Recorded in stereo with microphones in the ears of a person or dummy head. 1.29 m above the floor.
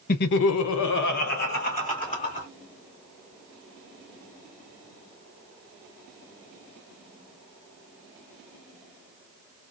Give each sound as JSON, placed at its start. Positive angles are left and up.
{"t": 0.1, "sound": "laughter", "side_deg": 45, "distance_m": 0.6}